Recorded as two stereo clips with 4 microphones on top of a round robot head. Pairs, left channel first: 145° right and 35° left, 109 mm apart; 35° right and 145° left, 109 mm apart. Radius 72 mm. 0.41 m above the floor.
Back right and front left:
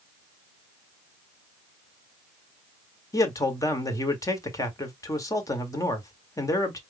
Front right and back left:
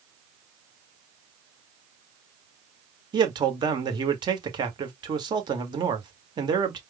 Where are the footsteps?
No footsteps in this recording.